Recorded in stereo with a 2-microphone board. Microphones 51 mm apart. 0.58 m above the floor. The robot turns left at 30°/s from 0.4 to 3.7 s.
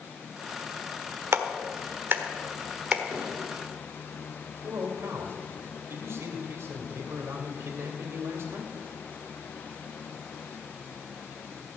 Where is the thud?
25° left (ahead or behind), 6.5 m; by 3.3 s 20° left (ahead or behind), 6.5 m.